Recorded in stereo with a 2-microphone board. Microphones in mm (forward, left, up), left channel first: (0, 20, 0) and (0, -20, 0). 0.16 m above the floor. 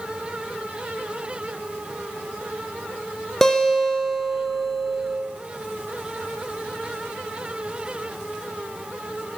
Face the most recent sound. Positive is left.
turn(degrees=10)  # may be behind; listen again after turning